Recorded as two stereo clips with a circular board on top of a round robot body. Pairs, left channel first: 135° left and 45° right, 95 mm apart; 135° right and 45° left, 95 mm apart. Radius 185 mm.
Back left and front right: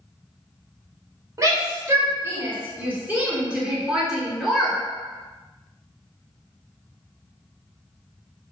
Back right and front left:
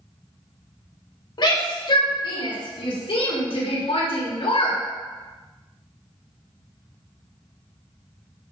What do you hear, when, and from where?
1.4 s a shout: 100° right, 3 m; by 4.8 s 135° right, 3 m